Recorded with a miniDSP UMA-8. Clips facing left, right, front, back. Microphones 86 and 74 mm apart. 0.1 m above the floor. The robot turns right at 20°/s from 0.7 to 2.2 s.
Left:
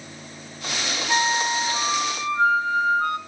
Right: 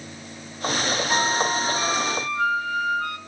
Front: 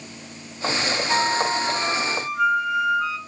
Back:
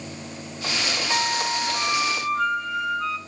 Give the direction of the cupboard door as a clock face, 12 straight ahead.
I don't hear a cupboard door.